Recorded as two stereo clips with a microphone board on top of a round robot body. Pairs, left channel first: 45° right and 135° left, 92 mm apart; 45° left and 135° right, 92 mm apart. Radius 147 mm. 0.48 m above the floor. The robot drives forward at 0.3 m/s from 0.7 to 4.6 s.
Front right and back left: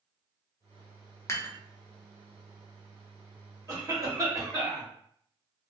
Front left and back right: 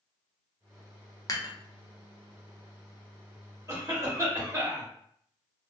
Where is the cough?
Straight behind, 1.6 m.